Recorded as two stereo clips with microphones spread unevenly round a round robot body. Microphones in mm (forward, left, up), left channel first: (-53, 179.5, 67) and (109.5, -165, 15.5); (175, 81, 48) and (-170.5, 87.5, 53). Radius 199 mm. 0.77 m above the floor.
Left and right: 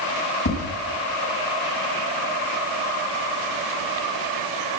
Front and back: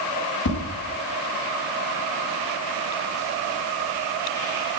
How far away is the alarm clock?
No alarm clock in this recording.